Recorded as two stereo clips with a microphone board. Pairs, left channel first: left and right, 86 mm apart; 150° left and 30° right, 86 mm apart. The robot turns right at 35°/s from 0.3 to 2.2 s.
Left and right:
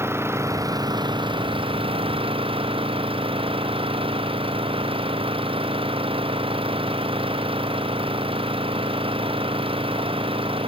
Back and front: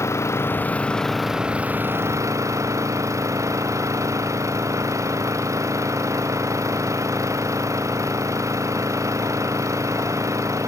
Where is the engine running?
150° right; by 10.7 s 85° right.